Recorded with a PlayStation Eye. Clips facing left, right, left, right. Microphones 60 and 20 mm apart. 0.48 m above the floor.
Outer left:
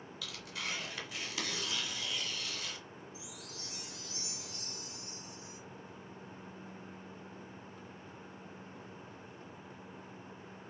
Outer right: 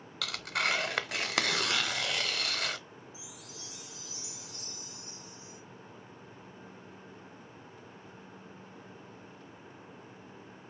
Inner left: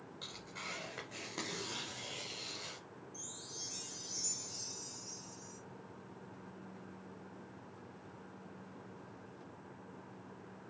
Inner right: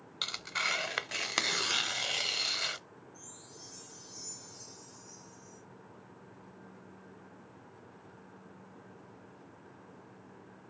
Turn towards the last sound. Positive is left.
turn(degrees=55)  # may be behind; listen again after turning